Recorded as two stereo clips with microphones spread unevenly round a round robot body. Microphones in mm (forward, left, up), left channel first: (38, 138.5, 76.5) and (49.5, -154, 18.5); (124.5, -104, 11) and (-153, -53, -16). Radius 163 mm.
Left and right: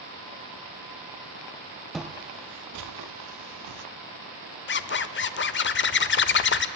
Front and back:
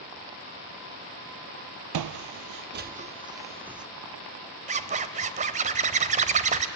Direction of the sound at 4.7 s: 135° left.